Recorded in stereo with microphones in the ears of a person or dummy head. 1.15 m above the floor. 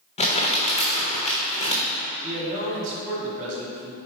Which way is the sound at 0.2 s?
30° left (ahead or behind).